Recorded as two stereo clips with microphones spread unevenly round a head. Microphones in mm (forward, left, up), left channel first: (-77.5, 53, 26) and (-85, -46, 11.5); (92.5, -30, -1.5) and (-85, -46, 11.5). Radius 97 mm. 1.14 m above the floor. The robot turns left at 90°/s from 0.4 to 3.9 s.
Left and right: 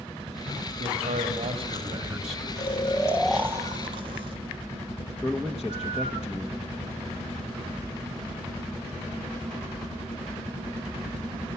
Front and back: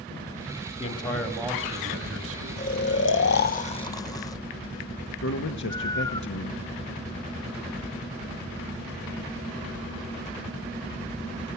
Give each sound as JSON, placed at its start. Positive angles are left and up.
{"t": 0.8, "sound": "a man speaking", "azimuth_deg": -45, "distance_m": 3.0}
{"t": 2.6, "sound": "snoring", "azimuth_deg": 55, "distance_m": 1.0}
{"t": 5.2, "sound": "a man speaking", "azimuth_deg": -10, "distance_m": 1.2}